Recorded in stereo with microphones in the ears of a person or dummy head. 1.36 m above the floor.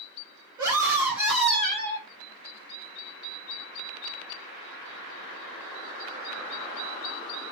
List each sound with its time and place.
0.6 s a scream: 15° right (ahead or behind), 2 m; by 2.1 s 25° left (ahead or behind), 1.7 m